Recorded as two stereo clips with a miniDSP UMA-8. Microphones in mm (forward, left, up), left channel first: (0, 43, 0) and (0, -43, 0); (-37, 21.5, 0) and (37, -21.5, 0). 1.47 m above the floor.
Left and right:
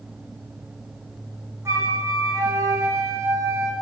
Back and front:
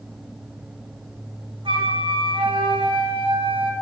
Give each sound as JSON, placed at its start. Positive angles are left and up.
{"t": 1.6, "sound": "a flute", "azimuth_deg": -35, "distance_m": 5.0}